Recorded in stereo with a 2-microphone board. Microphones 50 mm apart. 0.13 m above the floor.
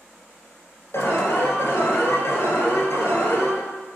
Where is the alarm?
55° left (ahead or behind), 1.8 m.